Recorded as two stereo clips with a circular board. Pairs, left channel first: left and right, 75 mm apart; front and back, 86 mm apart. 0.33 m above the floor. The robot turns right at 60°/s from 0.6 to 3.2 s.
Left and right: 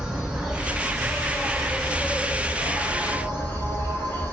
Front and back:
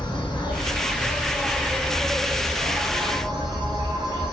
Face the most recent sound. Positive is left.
turn(degrees=150)